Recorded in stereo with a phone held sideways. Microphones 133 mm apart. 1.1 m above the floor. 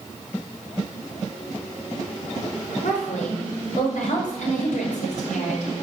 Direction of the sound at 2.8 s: 70° left (ahead or behind).